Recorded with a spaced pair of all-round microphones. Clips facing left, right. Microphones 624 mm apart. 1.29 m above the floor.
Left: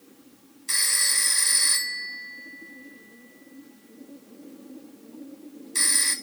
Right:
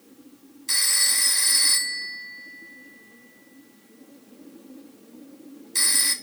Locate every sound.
0.7 s a phone ringing: 15° right (ahead or behind), 1.0 m